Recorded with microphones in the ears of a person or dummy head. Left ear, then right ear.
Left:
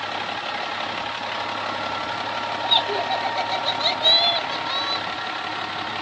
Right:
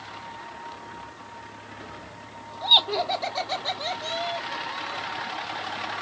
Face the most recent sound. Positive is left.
turn(degrees=45)  # may be behind; listen again after turning